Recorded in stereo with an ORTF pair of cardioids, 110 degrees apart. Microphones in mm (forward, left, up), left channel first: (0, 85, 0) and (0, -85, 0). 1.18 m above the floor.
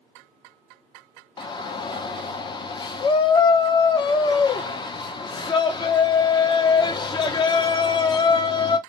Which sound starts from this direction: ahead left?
A shout, at 1.4 s.